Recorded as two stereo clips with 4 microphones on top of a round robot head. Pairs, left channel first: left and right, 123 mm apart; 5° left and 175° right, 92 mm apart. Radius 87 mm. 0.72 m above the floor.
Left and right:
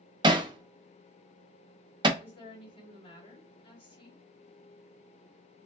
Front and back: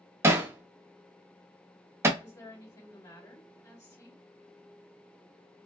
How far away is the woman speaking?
About 2 m.